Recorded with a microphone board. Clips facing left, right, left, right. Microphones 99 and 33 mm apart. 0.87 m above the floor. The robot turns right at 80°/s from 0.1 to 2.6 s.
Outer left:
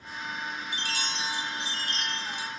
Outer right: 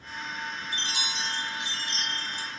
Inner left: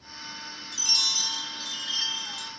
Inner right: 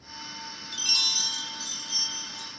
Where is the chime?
35° right, 1.6 m; by 2.5 s 105° left, 1.6 m.